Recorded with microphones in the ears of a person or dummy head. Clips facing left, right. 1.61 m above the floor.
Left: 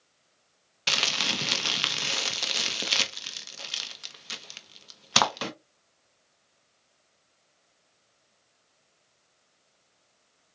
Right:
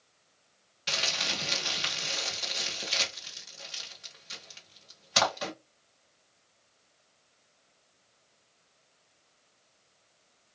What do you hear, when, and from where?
0.9 s crumpling: 75° left (ahead or behind), 1.0 m